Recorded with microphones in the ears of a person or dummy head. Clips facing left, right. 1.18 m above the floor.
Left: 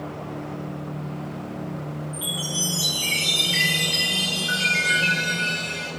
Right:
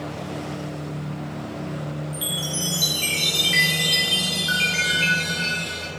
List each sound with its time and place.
2.1 s a chime: 30° right (ahead or behind), 4 m